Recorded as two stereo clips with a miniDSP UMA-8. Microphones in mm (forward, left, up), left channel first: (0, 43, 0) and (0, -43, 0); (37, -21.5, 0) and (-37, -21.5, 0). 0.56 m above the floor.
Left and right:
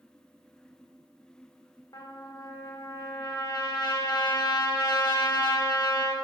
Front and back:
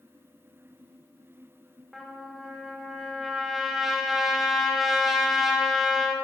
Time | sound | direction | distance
1.9 | a trumpet | 95° left | 1.9 m